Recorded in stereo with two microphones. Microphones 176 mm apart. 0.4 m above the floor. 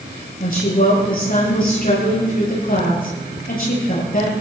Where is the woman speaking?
55° left (ahead or behind), 8 m.